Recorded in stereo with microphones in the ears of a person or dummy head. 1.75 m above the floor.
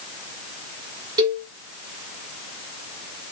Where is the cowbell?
25° right (ahead or behind), 1.1 m.